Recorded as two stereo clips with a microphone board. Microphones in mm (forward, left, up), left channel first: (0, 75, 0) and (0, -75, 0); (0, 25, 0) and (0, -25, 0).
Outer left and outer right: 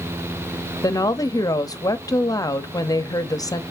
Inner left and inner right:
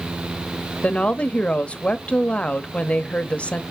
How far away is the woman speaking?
About 0.8 m.